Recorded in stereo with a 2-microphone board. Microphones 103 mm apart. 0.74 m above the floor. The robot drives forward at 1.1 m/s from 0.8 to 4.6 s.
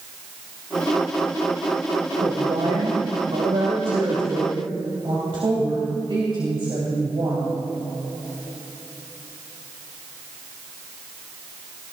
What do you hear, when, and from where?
2.2 s a woman speaking: 70° right (ahead or behind), 2.5 m; by 7.6 s 50° right (ahead or behind), 3 m